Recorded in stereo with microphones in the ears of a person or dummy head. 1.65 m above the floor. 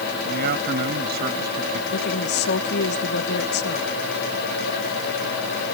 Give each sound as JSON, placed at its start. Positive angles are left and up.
{"t": 0.2, "sound": "a man speaking", "side_deg": -55}
{"t": 1.9, "sound": "a woman speaking", "side_deg": 60}